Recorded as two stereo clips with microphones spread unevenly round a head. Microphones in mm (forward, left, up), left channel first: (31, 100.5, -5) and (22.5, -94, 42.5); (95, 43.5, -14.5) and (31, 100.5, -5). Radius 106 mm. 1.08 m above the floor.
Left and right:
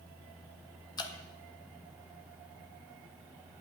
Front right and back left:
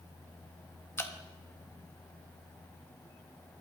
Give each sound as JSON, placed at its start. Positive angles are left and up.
{"t": 1.0, "sound": "dripping", "azimuth_deg": 20, "distance_m": 1.6}